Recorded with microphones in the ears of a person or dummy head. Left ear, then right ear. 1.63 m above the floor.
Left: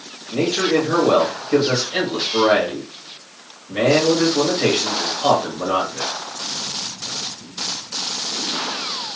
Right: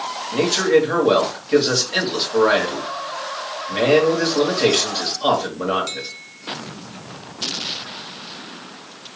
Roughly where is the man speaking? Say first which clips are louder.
Right 2 dB; right.